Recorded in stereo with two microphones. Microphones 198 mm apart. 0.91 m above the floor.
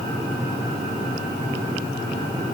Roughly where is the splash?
I don't hear a splash.